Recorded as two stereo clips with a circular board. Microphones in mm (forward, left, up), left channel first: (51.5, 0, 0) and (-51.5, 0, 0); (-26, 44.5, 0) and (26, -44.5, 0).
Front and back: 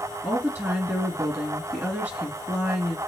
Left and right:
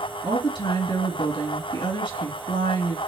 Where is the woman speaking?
110° left, 2.5 m.